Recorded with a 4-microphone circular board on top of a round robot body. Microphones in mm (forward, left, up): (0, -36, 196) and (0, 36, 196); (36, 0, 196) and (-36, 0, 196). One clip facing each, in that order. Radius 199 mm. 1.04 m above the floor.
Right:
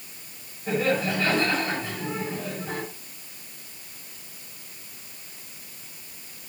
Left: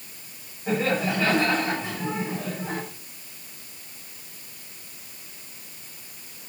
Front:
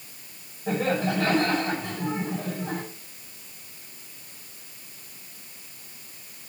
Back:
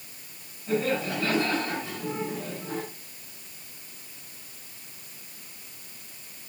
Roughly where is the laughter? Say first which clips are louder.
Even, front 2 dB; ahead.